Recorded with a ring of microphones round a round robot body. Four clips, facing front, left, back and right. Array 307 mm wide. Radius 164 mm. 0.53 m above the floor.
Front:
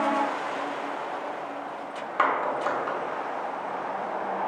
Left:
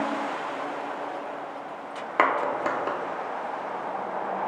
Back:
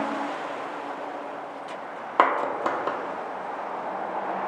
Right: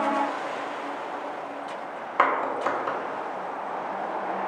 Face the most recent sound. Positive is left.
turn(degrees=150)